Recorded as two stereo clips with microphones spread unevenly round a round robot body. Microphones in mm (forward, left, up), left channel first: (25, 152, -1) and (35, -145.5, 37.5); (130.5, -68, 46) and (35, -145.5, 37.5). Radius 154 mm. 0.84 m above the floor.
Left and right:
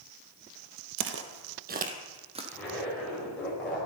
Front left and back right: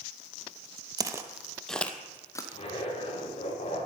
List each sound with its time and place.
1.0 s footsteps: 90° right, 1.1 m; by 2.4 s 25° right, 1.7 m
2.5 s a zipper: 5° left, 5 m